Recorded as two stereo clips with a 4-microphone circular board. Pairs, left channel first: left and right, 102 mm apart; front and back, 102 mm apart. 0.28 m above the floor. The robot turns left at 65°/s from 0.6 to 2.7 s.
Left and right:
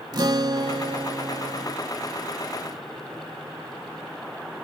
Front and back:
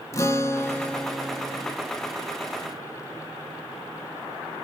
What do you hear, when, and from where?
0.1 s a guitar: 55° right, 0.9 m; by 1.8 s 130° right, 0.9 m